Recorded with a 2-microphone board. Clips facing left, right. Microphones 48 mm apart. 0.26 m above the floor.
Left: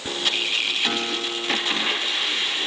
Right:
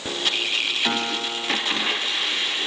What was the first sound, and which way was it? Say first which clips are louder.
A guitar: right 1 dB; 15° right (ahead or behind).